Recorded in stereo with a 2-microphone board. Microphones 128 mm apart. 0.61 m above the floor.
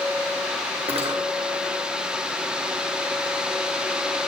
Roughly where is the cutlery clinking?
Right.